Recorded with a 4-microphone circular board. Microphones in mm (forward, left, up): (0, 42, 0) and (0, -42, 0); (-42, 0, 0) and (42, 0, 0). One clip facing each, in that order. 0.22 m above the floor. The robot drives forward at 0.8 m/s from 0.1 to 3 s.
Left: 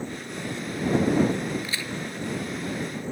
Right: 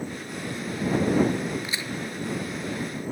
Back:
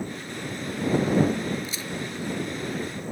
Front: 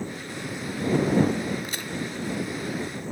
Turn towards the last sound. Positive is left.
turn(degrees=-25)